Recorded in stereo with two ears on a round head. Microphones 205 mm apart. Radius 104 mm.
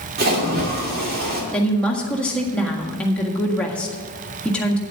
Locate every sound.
0.2 s a splash: 40° right (ahead or behind), 2.5 m
1.5 s a woman speaking: 5° left (ahead or behind), 1.6 m